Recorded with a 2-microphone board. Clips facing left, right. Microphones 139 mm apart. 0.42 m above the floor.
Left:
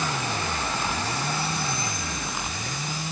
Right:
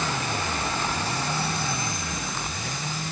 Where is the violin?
No violin in this recording.